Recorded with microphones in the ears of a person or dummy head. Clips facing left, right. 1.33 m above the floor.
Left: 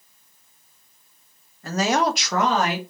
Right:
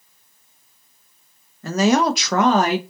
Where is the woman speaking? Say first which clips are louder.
Right 5 dB; 60° right (ahead or behind), 0.7 m; by 2.8 s 30° right (ahead or behind), 0.7 m.